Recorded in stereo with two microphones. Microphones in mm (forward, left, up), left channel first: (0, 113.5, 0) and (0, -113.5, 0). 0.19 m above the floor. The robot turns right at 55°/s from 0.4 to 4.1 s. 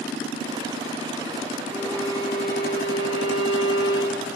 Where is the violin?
5° right, 6 m; by 4.3 s 125° left, 6 m.